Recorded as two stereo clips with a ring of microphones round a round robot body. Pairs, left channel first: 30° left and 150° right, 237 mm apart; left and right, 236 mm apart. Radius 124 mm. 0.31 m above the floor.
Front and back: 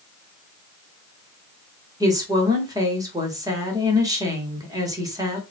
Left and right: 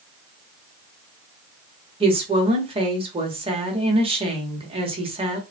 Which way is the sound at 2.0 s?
100° right.